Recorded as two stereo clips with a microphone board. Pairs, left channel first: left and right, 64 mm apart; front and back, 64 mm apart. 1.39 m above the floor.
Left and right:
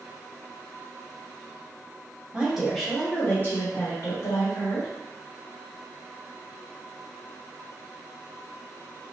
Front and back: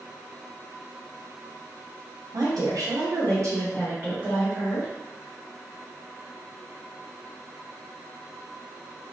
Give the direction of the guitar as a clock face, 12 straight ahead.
I don't hear a guitar.